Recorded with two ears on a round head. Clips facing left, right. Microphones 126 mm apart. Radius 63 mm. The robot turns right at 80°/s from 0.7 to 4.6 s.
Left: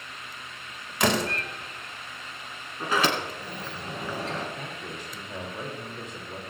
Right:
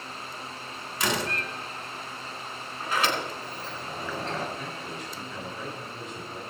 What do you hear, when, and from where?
1.0 s a door slam: 55° left (ahead or behind), 2.5 m; by 1.3 s 30° left (ahead or behind), 2.5 m
2.8 s a sliding door: 55° left (ahead or behind), 2.5 m; by 4.5 s 15° right (ahead or behind), 2.5 m
4.6 s a man speaking: 45° left (ahead or behind), 3 m; by 6.4 s 40° left (ahead or behind), 3 m